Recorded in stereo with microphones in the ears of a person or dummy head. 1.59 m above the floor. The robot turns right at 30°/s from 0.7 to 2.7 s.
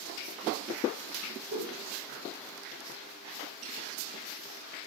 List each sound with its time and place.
1.5 s a whoosh: 70° right (ahead or behind), 0.7 m; by 1.8 s 75° right (ahead or behind), 0.7 m